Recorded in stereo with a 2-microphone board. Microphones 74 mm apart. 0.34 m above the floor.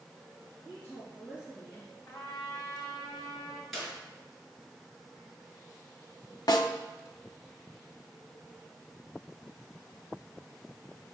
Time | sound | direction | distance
0.7 | a woman speaking | 25° left (ahead or behind) | 3 m
2.1 | a trumpet | 50° left (ahead or behind) | 2 m
3.7 | a clap | 5° left (ahead or behind) | 4 m
6.5 | a snare drum | 65° left (ahead or behind) | 0.8 m